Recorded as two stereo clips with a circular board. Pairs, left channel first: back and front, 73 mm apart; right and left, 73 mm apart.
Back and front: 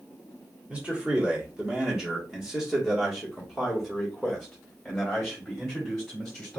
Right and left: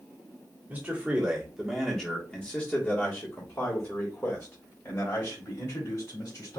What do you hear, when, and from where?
0.7 s a man speaking: 55° left, 1.4 m; by 6.6 s 100° right, 3 m